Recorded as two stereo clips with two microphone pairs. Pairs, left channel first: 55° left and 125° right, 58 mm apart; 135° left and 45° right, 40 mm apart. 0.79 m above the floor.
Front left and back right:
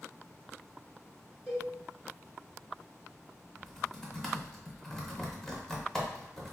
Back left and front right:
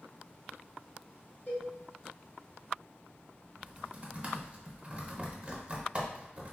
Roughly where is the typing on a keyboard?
Ahead.